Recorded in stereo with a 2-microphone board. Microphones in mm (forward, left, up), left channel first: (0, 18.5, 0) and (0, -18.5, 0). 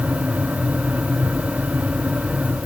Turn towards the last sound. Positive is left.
No sound to turn to.